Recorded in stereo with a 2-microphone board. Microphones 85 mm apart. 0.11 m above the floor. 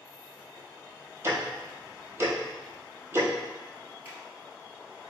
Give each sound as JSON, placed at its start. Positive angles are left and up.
{"t": 1.2, "sound": "ticking", "side_deg": -30, "distance_m": 0.9}
{"t": 4.0, "sound": "a finger snap", "side_deg": -25, "distance_m": 1.6}